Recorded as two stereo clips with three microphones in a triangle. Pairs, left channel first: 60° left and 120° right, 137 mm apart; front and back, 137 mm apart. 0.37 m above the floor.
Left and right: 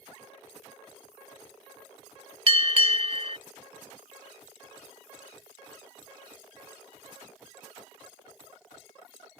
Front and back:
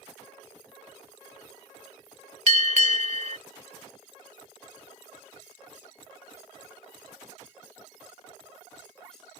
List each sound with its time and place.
2.5 s a bell: 155° right